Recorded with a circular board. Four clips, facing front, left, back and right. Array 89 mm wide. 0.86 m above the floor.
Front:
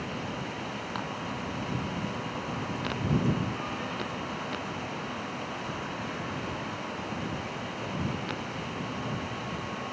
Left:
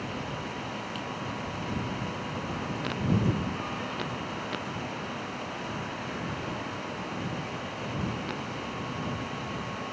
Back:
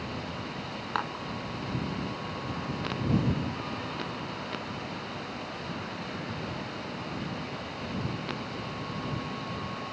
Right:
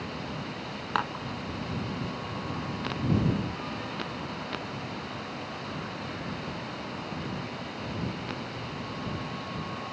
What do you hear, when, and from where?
0.9 s dishes clattering: 115° right